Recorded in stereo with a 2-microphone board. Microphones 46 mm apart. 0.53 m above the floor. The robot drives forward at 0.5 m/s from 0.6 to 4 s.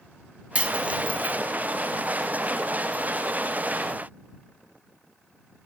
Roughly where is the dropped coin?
Right.